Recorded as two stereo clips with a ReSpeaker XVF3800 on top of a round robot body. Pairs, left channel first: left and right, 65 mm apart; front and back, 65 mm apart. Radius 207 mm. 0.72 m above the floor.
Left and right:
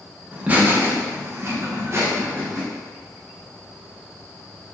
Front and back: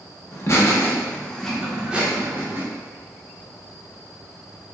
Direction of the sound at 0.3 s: 25° right.